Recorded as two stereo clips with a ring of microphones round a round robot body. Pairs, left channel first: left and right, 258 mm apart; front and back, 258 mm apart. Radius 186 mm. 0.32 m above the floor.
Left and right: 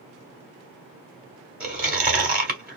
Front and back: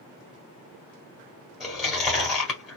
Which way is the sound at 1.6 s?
90° right.